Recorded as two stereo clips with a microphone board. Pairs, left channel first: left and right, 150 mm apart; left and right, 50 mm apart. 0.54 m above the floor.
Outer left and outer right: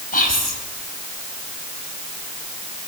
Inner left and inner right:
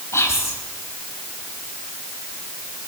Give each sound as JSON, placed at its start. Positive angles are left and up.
{"t": 0.1, "sound": "whispering", "side_deg": 70, "distance_m": 3.0}